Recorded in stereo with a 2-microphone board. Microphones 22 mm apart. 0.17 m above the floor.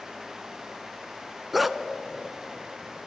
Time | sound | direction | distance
1.5 | a dog barking | 5° right (ahead or behind) | 0.8 m